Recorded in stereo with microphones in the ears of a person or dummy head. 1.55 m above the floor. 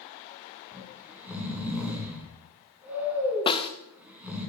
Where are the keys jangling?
No keys jangling in this recording.